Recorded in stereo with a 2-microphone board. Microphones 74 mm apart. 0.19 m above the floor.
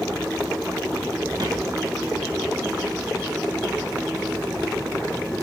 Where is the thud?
65° right (ahead or behind), 3 m.